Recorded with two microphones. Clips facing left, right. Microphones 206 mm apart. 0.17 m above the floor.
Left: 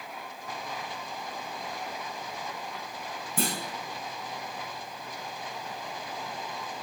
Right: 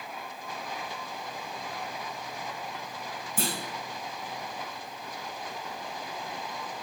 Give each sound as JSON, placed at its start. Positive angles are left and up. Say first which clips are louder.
{"t": 3.4, "sound": "a clunk", "louder": "left 2 dB", "side_deg": 55, "distance_m": 6.5}